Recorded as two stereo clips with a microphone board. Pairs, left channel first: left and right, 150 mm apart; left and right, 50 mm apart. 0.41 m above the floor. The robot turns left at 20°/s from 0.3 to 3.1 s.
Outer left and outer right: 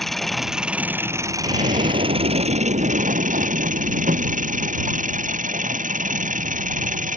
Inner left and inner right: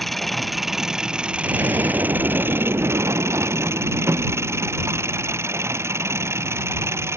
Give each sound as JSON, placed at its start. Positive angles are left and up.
{"t": 0.0, "sound": "an engine running", "azimuth_deg": 0}
{"t": 1.4, "sound": "an explosion", "azimuth_deg": -45}